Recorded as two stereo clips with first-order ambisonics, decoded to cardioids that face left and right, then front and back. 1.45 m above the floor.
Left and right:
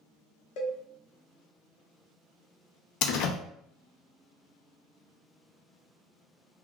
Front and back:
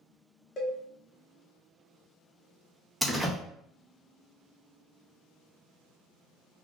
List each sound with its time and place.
0.6 s a cowbell: 65° left, 0.8 m
3.0 s a door slam: 85° left, 0.5 m